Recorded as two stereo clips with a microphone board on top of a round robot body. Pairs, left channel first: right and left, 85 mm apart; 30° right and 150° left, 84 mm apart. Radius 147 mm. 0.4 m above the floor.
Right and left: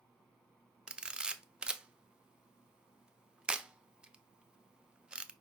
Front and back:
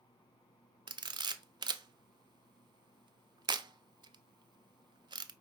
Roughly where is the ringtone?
No ringtone in this recording.